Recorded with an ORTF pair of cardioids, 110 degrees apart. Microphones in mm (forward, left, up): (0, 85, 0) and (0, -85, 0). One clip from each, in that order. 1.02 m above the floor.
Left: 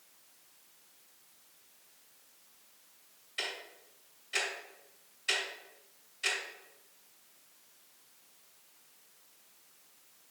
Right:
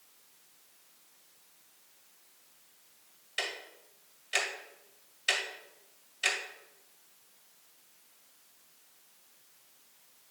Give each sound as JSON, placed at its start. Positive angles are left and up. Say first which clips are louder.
{"t": 3.4, "sound": "ticking", "louder": "right 2 dB", "azimuth_deg": -45, "distance_m": 2.0}